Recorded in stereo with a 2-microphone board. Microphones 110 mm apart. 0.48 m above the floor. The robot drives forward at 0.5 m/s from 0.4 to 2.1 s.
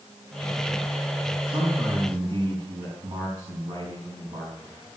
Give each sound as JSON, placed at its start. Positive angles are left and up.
{"t": 1.5, "sound": "a man speaking", "side_deg": -45, "distance_m": 5.0}